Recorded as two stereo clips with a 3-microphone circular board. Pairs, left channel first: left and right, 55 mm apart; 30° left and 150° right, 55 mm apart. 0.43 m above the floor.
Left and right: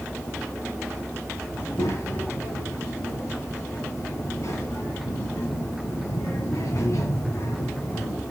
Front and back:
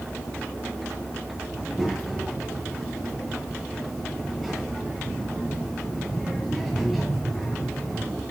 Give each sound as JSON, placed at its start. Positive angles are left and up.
{"t": 1.5, "sound": "a child speaking", "azimuth_deg": 125, "distance_m": 3.0}